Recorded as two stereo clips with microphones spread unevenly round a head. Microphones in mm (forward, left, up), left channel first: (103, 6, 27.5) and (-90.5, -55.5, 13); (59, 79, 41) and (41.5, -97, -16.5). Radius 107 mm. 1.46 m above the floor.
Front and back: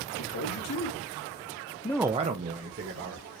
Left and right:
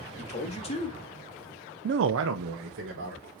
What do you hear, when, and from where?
0.2 s a man speaking: 35° left, 2.5 m; by 3.3 s 125° right, 2.5 m